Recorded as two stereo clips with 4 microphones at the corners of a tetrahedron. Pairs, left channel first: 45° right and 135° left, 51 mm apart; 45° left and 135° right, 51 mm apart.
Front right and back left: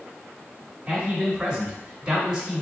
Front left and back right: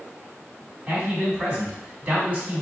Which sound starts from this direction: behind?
A man speaking, at 0.9 s.